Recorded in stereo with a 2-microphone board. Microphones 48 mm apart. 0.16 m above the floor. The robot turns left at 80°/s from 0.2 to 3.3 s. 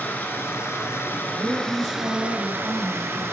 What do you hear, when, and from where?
0.0 s running water: 135° left, 0.9 m; by 3.3 s 115° right, 0.9 m
1.2 s a woman speaking: 15° right, 2.5 m; by 3.2 s 175° right, 2.5 m